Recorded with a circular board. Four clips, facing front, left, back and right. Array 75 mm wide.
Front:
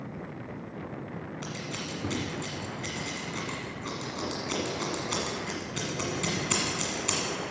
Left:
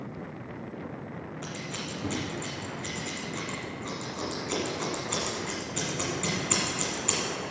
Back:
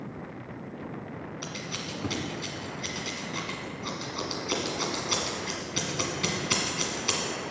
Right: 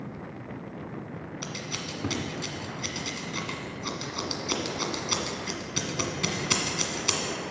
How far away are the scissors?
About 1.7 m.